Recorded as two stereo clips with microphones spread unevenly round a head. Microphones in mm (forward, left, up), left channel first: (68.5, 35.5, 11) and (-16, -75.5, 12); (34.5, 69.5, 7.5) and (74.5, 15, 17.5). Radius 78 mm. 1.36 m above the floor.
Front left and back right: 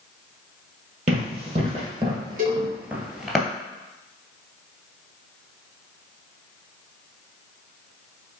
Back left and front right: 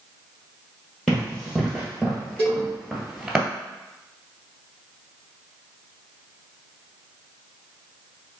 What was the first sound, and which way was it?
Running footsteps, 145° right.